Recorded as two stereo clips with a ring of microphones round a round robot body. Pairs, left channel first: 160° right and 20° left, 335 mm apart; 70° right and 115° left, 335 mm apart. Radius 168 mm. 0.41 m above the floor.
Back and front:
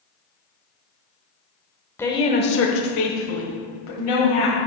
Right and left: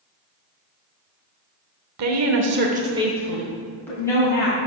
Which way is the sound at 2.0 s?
120° left.